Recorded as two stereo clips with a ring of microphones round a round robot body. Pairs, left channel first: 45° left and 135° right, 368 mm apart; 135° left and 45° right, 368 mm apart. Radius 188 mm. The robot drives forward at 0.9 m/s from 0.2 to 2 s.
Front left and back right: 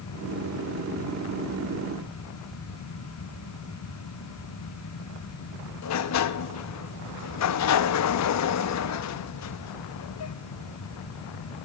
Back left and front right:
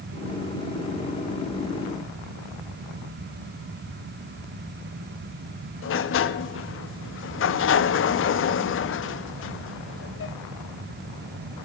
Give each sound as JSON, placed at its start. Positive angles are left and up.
{"t": 5.8, "sound": "a sliding door", "azimuth_deg": 85, "distance_m": 0.6}